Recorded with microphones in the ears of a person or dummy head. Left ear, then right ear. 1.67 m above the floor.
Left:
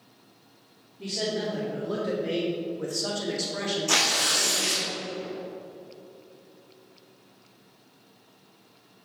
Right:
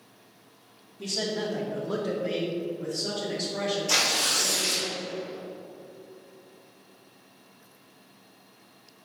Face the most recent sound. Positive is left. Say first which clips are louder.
# left 2 dB
turn(degrees=45)  # may be behind; listen again after turning